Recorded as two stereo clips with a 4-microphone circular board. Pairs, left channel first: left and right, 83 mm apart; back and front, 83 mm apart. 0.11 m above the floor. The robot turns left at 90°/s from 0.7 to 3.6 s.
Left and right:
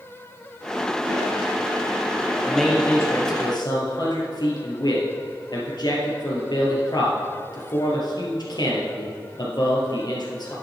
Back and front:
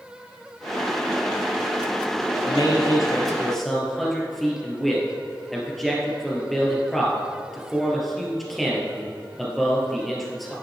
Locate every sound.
2.5 s a man speaking: 165° right, 1.8 m; by 10.5 s 90° left, 1.8 m